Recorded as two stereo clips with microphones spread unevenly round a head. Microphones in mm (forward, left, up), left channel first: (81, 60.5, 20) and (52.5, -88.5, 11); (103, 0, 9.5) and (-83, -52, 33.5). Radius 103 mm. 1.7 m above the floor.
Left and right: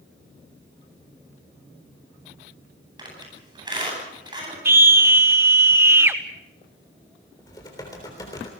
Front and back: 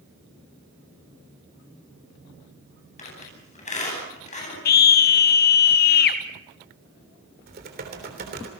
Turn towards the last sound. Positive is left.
turn(degrees=150)